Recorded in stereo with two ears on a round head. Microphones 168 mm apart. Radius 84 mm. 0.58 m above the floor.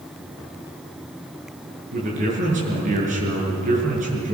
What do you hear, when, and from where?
1.9 s a man speaking: 40° right (ahead or behind), 7 m